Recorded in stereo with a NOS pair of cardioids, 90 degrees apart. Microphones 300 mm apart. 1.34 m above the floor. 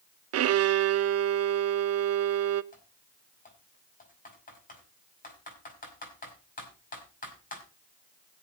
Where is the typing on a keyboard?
30° left, 5 m.